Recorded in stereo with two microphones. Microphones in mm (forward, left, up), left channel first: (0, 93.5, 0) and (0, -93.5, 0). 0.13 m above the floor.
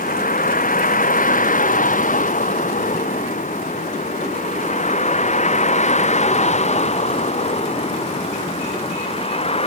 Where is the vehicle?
50° left (ahead or behind); by 9.7 s 35° left (ahead or behind).